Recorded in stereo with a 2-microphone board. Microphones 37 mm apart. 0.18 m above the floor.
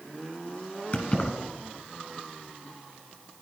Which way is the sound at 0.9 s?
40° left (ahead or behind).